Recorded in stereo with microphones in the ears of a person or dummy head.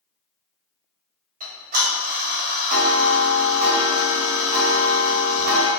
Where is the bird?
No bird in this recording.